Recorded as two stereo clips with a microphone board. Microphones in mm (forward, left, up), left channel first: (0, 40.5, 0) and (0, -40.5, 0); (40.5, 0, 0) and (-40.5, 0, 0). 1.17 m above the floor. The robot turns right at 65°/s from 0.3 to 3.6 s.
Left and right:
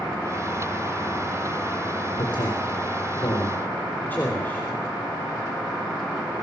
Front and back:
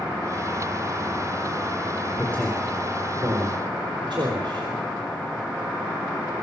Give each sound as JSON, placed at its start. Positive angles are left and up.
{"t": 2.2, "sound": "a man speaking", "azimuth_deg": 65, "distance_m": 4.0}